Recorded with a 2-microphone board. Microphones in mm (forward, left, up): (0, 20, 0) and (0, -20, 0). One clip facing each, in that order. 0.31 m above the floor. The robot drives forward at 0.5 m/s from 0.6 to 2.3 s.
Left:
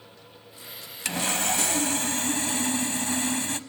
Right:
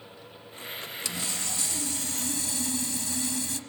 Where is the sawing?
55° left (ahead or behind), 0.7 m; by 3.6 s 50° left (ahead or behind), 0.8 m.